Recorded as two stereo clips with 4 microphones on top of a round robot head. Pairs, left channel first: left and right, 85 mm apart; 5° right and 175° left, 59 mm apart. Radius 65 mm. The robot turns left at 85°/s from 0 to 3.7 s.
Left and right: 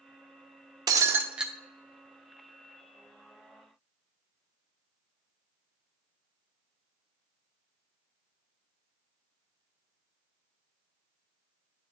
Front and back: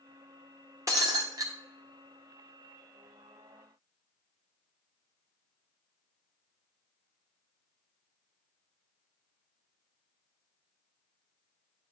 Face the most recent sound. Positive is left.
turn(degrees=-5)